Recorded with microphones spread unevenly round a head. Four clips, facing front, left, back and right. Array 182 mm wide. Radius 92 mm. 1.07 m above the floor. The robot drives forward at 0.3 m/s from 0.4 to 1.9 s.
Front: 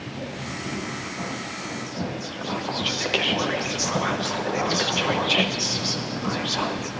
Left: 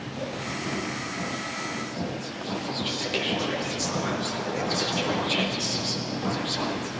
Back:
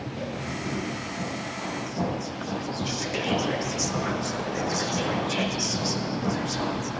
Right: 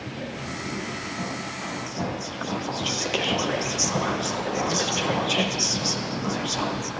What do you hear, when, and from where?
1.9 s whispering: 25° right, 1.0 m